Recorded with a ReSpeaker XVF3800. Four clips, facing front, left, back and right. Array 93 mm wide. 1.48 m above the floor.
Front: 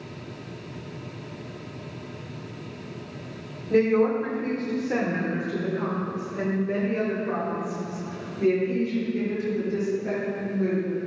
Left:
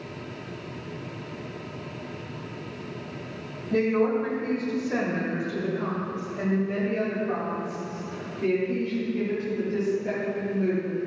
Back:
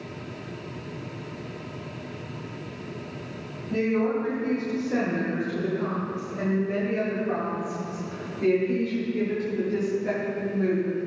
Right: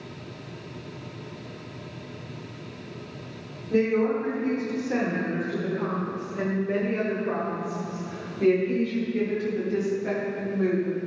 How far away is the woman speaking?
About 5.5 m.